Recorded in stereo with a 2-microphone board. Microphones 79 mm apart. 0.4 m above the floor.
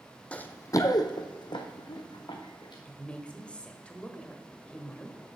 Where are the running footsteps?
15° left (ahead or behind), 0.8 m; by 2.8 s 60° left (ahead or behind), 2 m.